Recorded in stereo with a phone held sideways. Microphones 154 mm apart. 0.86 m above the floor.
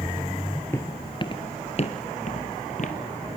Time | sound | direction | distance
0.7 | footsteps | 15° left (ahead or behind) | 1.1 m